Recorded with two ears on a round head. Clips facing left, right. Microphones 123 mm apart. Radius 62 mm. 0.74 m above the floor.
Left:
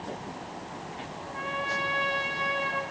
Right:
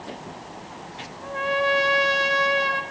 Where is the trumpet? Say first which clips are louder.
Right 11 dB; 70° right (ahead or behind), 3 m.